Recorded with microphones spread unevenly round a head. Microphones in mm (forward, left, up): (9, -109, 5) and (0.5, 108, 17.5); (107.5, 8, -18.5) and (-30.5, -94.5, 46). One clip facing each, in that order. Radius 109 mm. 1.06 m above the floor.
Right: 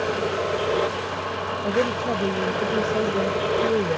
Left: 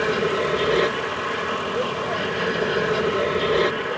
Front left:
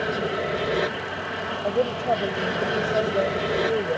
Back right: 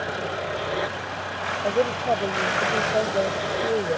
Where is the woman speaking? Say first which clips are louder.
Right 6 dB, back right 1 dB; 60° right.